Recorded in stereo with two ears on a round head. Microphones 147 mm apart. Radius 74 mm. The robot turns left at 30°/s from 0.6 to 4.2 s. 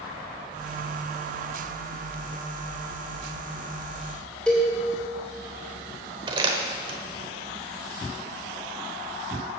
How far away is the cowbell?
About 2.5 m.